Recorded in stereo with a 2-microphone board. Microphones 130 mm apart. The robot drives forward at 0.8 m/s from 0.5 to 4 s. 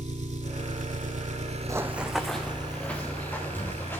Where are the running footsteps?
25° right (ahead or behind), 0.6 m; by 4.0 s 15° left (ahead or behind), 3 m.